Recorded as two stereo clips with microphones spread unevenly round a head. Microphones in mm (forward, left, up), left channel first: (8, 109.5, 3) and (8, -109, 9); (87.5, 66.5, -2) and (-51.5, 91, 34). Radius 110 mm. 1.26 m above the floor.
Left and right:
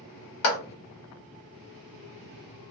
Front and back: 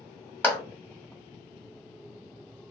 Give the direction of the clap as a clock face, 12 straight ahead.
10 o'clock.